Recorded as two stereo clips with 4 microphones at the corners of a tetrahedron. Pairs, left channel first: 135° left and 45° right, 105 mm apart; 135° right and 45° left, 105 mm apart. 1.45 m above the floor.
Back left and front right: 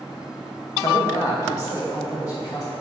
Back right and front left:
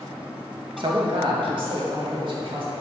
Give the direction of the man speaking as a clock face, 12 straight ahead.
9 o'clock.